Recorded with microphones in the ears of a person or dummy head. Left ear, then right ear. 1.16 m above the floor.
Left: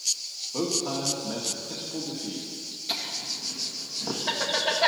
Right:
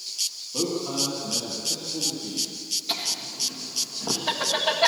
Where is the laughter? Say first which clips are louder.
Left 2 dB; 5° right (ahead or behind), 1.7 m.